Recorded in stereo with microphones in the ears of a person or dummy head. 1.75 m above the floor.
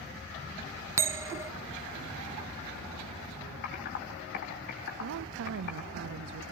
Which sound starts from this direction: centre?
A bell, at 1.0 s.